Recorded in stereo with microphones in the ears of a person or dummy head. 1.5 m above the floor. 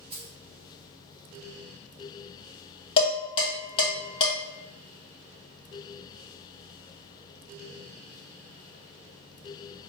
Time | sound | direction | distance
0.1 | keys jangling | 35° right (ahead or behind) | 1.8 m
3.0 | dishes clattering | 35° left (ahead or behind) | 1.0 m